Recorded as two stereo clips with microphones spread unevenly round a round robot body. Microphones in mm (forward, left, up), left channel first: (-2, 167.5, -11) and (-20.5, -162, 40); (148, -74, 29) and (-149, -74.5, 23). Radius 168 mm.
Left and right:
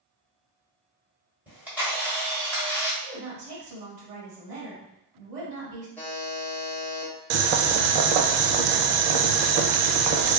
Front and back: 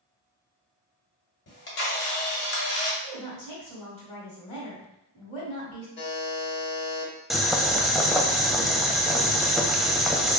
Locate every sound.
1.5 s a camera shutter: 5° left, 1.4 m
3.0 s a woman speaking: 70° right, 1.8 m
6.0 s a buzzer: 20° left, 0.9 m
7.3 s boiling: 90° right, 0.6 m